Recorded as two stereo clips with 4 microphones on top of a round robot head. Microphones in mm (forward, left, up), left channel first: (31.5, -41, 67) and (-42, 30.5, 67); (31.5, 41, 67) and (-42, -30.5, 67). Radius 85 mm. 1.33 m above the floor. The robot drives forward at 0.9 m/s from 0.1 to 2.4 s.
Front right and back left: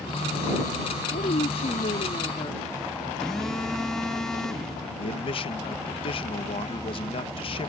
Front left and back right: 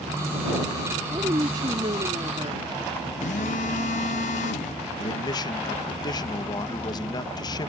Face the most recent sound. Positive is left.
turn(degrees=-5)